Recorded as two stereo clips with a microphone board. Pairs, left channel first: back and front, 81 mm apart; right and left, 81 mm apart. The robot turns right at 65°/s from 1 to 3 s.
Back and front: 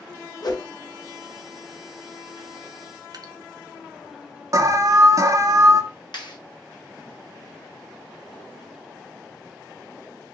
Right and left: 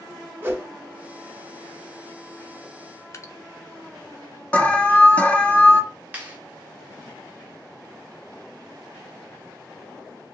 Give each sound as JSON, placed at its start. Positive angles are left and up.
{"t": 0.4, "sound": "a whoosh", "azimuth_deg": 150, "distance_m": 0.7}
{"t": 3.1, "sound": "dripping", "azimuth_deg": -35, "distance_m": 0.6}
{"t": 4.5, "sound": "an alarm", "azimuth_deg": -25, "distance_m": 0.5}
{"t": 6.1, "sound": "a clap", "azimuth_deg": 160, "distance_m": 1.4}